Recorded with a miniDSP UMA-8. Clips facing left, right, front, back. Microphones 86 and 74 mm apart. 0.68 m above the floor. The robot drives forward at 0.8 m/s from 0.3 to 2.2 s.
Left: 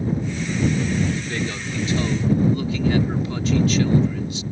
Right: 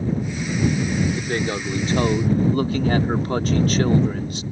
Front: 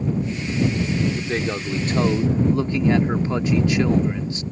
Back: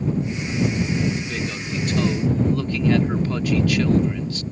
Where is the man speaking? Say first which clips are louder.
Right 3 dB, front 3 dB; 40° right; by 4.4 s 65° right.